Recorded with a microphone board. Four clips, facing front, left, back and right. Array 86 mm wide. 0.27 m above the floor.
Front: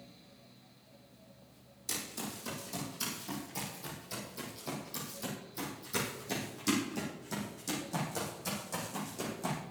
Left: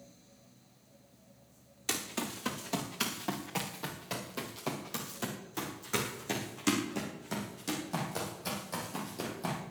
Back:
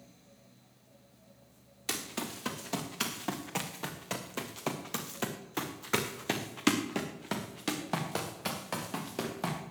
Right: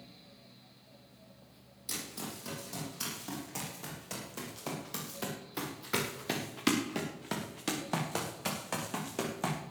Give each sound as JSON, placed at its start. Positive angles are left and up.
{"t": 1.9, "sound": "running footsteps", "azimuth_deg": 140, "distance_m": 3.5}